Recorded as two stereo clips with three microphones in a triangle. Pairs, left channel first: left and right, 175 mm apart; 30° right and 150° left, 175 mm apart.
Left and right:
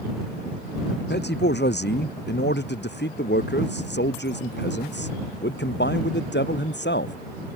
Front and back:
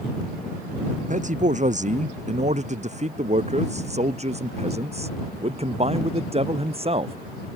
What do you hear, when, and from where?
1.0 s a man speaking: 105° left; by 7.2 s 95° left